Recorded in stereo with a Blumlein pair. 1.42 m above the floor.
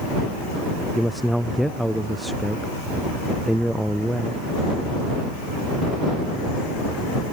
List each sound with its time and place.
0.9 s a man speaking: straight ahead